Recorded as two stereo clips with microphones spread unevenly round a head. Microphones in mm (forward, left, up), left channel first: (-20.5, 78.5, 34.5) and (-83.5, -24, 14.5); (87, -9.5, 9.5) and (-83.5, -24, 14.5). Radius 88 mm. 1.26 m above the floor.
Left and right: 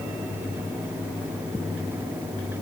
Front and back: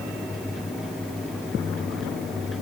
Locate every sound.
Only background noise.